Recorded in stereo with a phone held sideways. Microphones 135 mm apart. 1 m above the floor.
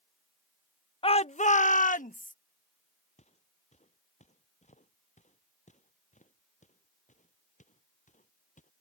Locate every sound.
1.0 s a shout: 40° left (ahead or behind); by 2.3 s 70° left (ahead or behind)
3.2 s footsteps: 50° left (ahead or behind); by 8.7 s 60° left (ahead or behind)